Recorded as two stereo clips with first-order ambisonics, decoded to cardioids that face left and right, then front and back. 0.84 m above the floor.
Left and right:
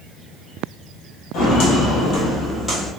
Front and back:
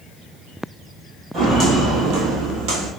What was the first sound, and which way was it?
Footsteps, 110° left.